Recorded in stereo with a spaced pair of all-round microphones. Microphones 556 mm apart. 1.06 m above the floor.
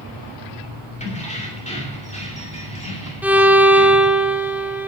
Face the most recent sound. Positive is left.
turn(degrees=-5)  # may be behind; listen again after turning